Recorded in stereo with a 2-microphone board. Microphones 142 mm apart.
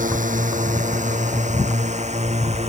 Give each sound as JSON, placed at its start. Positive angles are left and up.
{"t": 0.0, "sound": "a drone", "side_deg": -65}